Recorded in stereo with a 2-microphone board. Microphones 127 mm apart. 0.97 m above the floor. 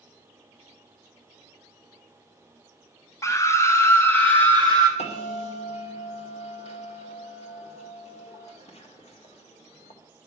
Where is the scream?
25° left (ahead or behind), 0.8 m; by 4.9 s 10° left (ahead or behind), 1.4 m.